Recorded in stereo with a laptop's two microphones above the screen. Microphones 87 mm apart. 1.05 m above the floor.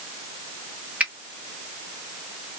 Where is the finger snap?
15° right (ahead or behind), 1.3 m.